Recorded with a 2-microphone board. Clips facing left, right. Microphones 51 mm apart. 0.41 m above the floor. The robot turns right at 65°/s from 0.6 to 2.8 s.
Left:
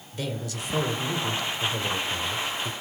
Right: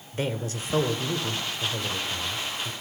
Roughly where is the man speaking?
Ahead right.